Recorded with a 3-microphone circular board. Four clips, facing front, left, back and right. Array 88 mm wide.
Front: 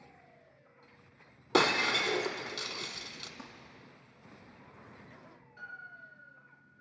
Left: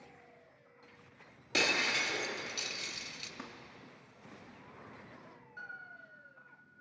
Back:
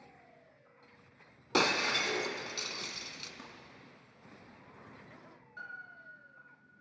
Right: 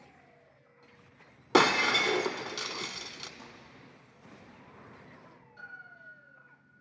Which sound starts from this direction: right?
Breaking glass, at 1.5 s.